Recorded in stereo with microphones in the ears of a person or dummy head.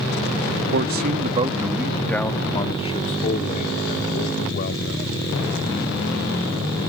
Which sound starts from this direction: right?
A man speaking, at 0.7 s.